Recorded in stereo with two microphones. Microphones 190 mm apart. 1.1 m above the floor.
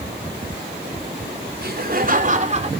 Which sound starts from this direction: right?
Laughter, at 1.6 s.